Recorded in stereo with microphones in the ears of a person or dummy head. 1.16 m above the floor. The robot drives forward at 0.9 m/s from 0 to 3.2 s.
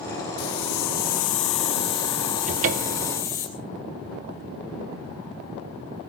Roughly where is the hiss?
Left.